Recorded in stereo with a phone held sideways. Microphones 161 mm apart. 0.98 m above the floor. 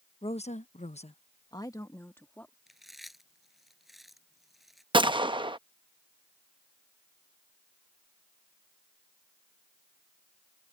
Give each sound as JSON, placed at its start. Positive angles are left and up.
{"t": 0.2, "sound": "a woman speaking", "side_deg": 35}
{"t": 2.7, "sound": "chewing", "side_deg": 0}
{"t": 4.9, "sound": "a gunshot", "side_deg": -30}